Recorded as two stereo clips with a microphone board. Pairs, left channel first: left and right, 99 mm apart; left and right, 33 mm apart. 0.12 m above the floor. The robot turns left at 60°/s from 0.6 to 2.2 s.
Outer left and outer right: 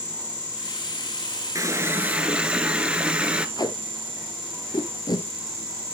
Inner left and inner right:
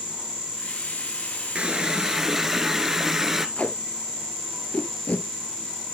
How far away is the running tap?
About 1.3 m.